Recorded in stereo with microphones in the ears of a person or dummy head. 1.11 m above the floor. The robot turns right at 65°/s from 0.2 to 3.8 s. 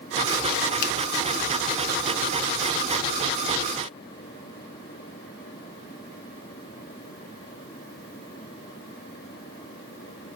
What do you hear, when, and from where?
0.8 s a finger snap: 45° left (ahead or behind), 0.6 m; by 0.9 s 50° left (ahead or behind), 0.6 m